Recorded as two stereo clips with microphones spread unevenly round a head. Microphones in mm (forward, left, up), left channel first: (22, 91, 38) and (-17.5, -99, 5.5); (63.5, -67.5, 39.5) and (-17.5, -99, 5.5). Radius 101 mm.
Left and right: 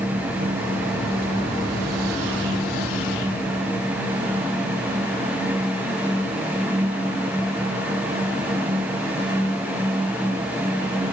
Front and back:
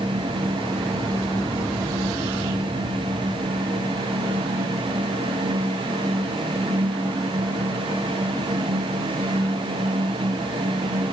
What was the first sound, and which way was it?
Only background noise.